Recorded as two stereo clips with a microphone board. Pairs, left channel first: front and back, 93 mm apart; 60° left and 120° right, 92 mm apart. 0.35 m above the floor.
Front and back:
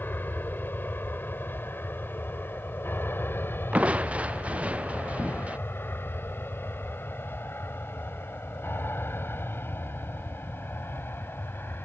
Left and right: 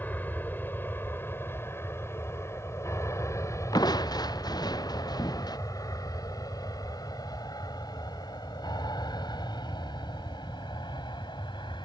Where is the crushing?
105° left.